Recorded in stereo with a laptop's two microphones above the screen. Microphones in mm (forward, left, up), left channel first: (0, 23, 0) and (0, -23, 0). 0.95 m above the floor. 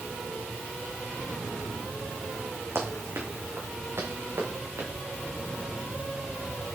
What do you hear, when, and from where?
2.8 s running footsteps: 75° right (ahead or behind), 4 m; by 4.9 s 80° right, 6.5 m